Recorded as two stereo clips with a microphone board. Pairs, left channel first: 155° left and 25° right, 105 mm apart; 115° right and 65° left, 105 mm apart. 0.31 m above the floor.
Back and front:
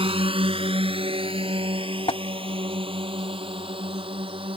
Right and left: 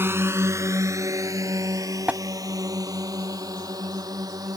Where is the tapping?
145° left.